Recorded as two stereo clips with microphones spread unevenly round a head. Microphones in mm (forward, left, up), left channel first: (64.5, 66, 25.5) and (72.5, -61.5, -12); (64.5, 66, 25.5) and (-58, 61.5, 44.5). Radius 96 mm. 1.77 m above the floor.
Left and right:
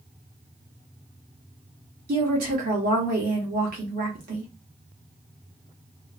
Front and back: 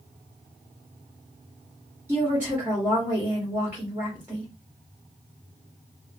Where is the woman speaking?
100° right, 1.3 m.